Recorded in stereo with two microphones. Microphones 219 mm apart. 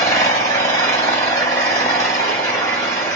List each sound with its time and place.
0.0 s an engine running: 15° left (ahead or behind), 1.7 m